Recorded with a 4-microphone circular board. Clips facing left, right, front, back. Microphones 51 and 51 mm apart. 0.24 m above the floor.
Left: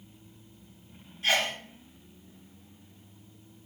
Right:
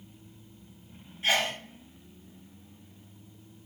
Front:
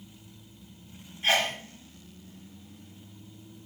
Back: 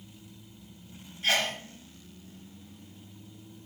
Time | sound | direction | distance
1.2 | a sneeze | 45° right | 1.2 m